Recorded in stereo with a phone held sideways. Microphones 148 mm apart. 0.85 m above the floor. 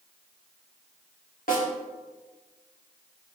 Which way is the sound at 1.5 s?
70° left (ahead or behind).